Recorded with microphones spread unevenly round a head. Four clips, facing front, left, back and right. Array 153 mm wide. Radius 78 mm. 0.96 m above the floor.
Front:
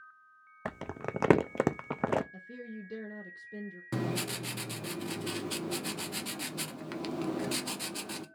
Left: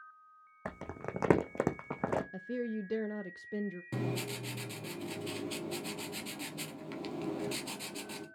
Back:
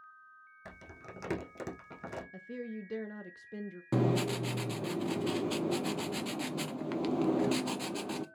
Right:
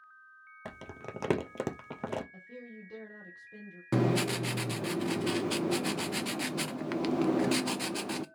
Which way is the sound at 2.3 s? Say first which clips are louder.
Left 11 dB, back 3 dB; 90° left.